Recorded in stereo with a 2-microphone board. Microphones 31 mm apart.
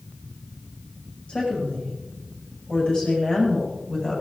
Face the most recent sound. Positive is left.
turn(degrees=25)  # may be behind; listen again after turning